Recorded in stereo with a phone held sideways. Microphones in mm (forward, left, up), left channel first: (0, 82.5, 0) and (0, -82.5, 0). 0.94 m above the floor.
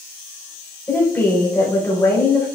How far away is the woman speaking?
About 4 m.